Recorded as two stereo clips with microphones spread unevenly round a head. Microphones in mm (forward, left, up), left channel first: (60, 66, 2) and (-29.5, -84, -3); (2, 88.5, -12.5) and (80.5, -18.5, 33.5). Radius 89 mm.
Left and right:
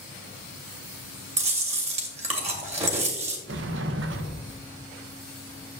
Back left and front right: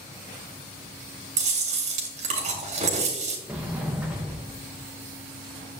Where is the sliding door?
145° right, 0.6 m.